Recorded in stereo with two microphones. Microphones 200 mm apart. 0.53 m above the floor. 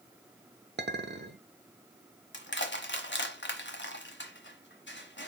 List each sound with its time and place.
0.8 s a clink: 60° right (ahead or behind), 0.7 m
2.3 s crushing: 65° left (ahead or behind), 1.1 m